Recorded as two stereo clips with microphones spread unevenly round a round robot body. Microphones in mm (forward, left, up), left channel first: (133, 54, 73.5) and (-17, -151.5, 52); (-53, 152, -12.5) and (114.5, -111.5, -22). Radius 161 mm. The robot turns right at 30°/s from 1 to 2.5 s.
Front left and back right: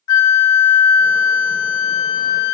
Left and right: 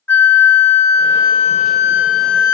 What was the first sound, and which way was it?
A flute, 40° left.